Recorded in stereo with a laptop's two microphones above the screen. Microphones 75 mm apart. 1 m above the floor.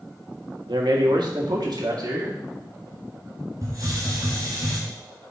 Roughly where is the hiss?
Right.